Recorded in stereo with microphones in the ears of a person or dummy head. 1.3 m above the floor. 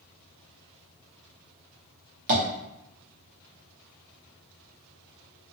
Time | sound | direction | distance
2.3 | tapping | 35° right (ahead or behind) | 0.9 m